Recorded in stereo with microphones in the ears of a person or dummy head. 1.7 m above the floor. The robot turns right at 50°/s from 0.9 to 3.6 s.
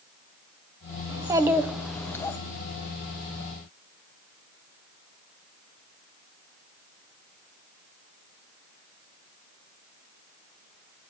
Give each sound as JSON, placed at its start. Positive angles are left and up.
{"t": 1.1, "sound": "a child speaking", "azimuth_deg": -35, "distance_m": 0.7}